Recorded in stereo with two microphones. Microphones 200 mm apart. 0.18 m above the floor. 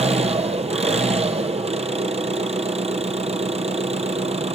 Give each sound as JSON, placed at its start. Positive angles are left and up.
{"t": 0.0, "sound": "an engine running", "side_deg": -30, "distance_m": 1.6}